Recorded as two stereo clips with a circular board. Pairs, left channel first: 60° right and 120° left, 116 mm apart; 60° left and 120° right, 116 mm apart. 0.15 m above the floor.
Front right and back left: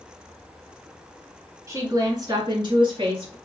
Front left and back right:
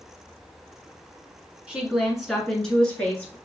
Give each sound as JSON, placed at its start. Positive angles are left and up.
{"t": 1.7, "sound": "a woman speaking", "azimuth_deg": 165, "distance_m": 1.3}